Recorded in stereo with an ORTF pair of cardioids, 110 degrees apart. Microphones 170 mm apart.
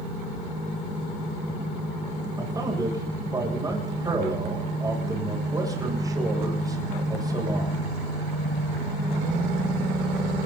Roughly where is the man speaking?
Ahead.